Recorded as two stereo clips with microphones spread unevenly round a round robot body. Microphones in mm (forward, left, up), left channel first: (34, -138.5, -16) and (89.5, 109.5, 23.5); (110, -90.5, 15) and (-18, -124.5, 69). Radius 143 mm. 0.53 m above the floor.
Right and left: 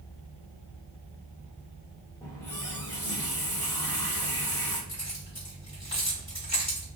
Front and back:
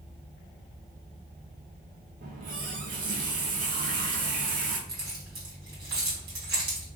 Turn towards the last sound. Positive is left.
turn(degrees=-170)